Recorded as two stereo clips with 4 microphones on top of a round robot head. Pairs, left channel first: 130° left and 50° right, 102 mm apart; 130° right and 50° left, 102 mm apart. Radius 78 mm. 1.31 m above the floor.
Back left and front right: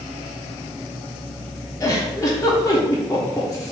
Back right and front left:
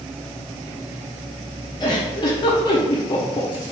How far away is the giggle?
About 1.2 m.